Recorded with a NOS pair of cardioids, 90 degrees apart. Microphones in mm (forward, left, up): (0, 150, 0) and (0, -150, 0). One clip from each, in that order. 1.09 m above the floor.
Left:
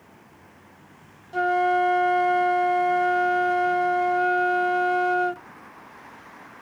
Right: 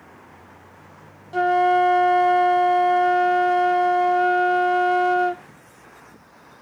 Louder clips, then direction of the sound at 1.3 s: Right 4 dB; 15° right.